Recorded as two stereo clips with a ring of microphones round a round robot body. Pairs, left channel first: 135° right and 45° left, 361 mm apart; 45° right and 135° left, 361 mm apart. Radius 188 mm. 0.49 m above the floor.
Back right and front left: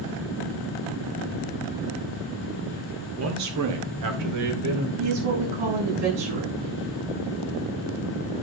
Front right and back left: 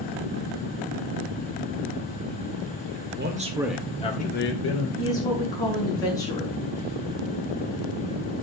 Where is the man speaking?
85° left, 1.8 m; by 4.9 s straight ahead, 3 m.